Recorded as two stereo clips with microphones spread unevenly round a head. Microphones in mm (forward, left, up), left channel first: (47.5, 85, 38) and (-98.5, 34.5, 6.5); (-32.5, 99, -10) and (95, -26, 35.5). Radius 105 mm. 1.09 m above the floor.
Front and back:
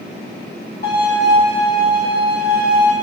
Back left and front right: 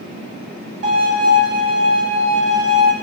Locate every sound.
0.8 s a violin: 30° right, 3.5 m